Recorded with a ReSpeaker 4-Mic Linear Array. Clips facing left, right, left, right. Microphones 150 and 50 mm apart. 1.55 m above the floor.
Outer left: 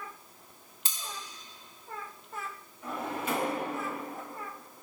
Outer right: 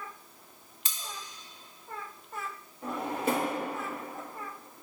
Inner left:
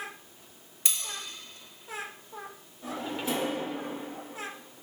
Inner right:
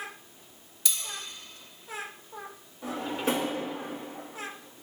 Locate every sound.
0.8 s cutlery clinking: 35° left (ahead or behind), 1.6 m
2.8 s a drawer: 65° right (ahead or behind), 1.7 m